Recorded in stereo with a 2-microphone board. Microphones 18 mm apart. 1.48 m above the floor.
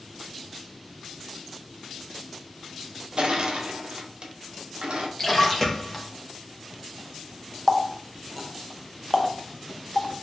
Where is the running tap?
10° left (ahead or behind), 0.6 m.